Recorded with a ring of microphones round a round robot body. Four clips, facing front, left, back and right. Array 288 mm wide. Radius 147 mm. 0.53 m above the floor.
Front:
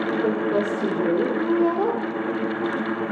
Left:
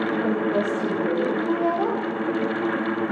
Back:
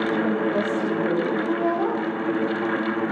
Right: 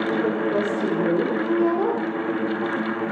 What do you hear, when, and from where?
0.2 s a woman speaking: 35° right, 2 m